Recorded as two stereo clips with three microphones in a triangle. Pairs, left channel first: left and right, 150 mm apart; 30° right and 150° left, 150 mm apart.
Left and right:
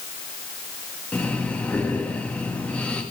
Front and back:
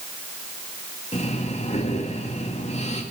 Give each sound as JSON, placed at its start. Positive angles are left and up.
{"t": 1.1, "sound": "breathing", "azimuth_deg": 10, "distance_m": 2.0}